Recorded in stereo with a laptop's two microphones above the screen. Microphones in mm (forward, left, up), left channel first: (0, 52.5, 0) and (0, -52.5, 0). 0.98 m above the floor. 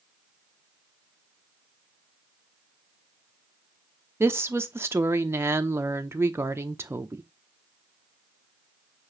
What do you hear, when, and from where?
4.2 s a woman speaking: 25° right (ahead or behind), 0.6 m